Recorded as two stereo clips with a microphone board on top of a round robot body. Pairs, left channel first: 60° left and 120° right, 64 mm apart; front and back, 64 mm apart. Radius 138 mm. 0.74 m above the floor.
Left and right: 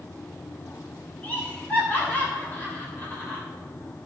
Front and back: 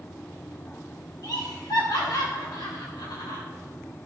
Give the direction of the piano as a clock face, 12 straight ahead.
I don't hear a piano.